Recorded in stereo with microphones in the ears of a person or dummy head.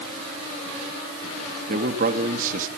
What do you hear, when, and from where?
1.7 s a man speaking: 40° right (ahead or behind), 2.5 m